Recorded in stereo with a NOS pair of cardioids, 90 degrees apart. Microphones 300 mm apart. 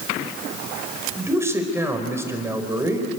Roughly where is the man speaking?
Ahead.